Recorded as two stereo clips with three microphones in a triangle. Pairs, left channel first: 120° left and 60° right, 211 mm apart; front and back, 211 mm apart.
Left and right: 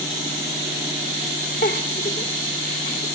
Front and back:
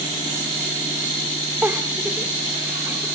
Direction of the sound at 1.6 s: 100° left.